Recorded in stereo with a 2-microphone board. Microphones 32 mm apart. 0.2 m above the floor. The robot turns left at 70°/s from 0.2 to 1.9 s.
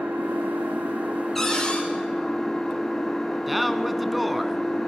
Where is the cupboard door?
175° left, 7 m; by 1.8 s 140° left, 7 m.